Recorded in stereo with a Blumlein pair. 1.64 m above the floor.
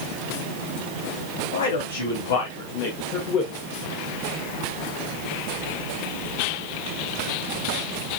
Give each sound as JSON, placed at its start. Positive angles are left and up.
{"t": 1.5, "sound": "a man speaking", "azimuth_deg": 65, "distance_m": 4.0}